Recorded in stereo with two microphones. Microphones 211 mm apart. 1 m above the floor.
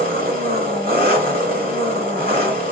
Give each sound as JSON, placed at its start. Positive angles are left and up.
{"t": 0.0, "sound": "an engine running", "side_deg": -45, "distance_m": 1.7}